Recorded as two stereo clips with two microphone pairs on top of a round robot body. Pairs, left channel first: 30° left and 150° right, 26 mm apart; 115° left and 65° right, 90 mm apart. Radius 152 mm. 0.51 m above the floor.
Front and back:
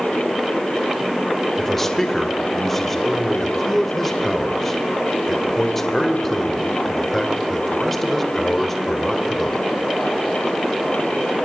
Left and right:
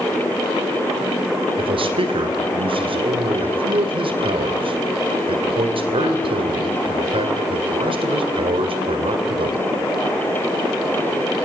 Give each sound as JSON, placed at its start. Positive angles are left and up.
{"t": 1.6, "sound": "a man speaking", "azimuth_deg": -45, "distance_m": 2.5}